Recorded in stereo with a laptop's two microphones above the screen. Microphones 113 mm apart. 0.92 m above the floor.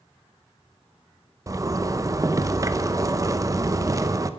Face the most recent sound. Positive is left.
turn(degrees=-30)  # may be behind; listen again after turning